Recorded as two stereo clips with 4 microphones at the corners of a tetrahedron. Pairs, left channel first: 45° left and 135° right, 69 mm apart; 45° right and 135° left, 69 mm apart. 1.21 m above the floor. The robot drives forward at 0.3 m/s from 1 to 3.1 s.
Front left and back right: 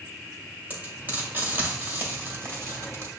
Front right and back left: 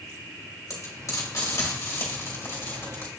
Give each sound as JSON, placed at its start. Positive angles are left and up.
{"t": 0.7, "sound": "frying", "azimuth_deg": -75, "distance_m": 1.8}